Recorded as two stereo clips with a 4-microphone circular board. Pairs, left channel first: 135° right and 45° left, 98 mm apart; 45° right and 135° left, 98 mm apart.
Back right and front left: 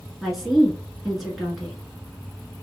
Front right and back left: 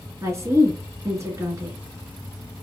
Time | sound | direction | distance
0.2 | a woman speaking | 130° left | 1.6 m